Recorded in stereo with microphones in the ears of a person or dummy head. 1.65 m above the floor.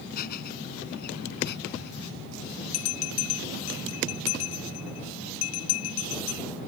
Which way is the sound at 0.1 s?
55° left (ahead or behind).